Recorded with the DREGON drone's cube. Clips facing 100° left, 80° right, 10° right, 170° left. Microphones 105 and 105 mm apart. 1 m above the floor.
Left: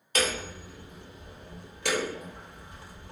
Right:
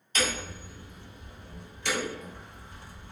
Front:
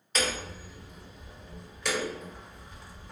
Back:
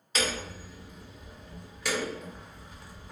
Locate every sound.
0.1 s hammering: 80° left, 1.1 m